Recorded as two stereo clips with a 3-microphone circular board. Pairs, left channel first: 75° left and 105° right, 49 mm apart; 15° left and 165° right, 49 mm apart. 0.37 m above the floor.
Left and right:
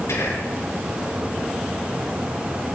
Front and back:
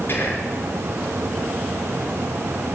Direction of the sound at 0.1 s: 60° left.